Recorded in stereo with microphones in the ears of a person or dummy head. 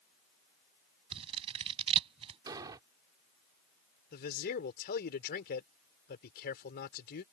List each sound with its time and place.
1.1 s scissors: 40° right (ahead or behind)
2.5 s an explosion: 25° right (ahead or behind)
4.1 s a man speaking: 55° left (ahead or behind)